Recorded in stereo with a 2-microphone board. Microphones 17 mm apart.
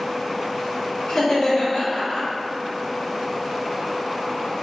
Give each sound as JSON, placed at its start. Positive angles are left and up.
{"t": 1.1, "sound": "laughter", "side_deg": 50, "distance_m": 1.1}